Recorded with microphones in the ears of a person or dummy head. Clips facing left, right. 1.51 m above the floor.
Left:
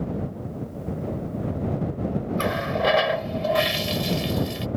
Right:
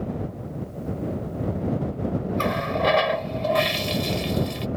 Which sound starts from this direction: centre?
A running tap, at 2.4 s.